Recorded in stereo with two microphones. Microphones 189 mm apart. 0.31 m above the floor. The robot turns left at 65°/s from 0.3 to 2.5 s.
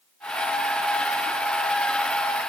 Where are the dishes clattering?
No dishes clattering in this recording.